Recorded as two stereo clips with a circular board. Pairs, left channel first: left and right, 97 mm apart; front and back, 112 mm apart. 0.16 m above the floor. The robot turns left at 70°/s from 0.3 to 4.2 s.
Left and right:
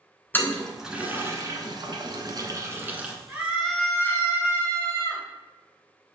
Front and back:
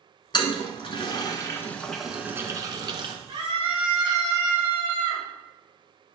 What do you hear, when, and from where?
0.3 s a toilet flushing: 25° left, 1.0 m; by 3.1 s 170° right, 1.0 m
3.3 s a scream: 155° right, 2 m; by 5.2 s 140° left, 2 m